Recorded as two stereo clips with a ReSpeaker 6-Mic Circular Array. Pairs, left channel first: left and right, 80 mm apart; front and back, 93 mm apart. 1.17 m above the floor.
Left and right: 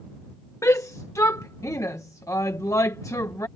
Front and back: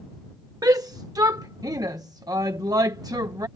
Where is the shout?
135° left.